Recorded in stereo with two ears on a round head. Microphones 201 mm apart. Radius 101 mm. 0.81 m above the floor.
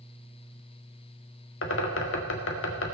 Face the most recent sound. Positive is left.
turn(degrees=65)  # may be behind; listen again after turning